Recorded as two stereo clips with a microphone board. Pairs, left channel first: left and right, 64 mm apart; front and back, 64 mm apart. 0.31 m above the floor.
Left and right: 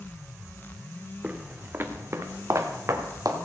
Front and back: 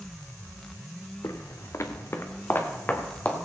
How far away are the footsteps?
About 1.3 m.